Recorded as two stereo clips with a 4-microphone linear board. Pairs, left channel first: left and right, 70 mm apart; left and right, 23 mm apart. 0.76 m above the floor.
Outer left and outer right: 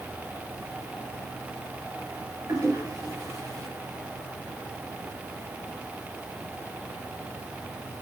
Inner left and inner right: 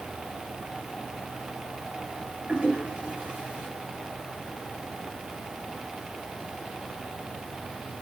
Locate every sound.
2.5 s a toilet flushing: 60° right (ahead or behind), 7.5 m